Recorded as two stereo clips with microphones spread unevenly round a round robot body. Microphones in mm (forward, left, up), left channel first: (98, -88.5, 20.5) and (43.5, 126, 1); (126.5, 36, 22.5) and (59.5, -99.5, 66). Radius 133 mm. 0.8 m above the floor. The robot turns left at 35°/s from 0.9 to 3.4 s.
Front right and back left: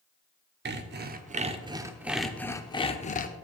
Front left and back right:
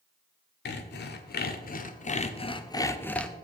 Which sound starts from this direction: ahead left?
Sawing, at 0.7 s.